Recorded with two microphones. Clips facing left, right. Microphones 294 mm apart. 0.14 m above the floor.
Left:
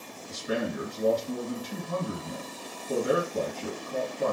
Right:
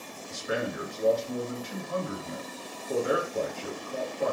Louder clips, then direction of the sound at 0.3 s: Left 1 dB; 40° left (ahead or behind).